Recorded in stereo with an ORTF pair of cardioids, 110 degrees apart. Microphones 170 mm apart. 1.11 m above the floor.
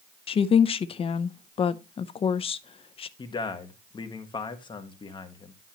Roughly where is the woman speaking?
Ahead left.